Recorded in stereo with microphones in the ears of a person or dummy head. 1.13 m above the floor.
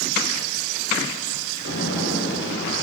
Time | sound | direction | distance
1.6 | an explosion | 60° left (ahead or behind) | 9.5 m